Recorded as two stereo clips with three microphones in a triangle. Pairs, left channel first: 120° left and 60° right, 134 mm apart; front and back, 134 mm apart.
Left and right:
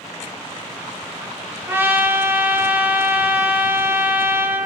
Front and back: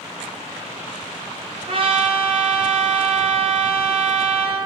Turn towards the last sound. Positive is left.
turn(degrees=-135)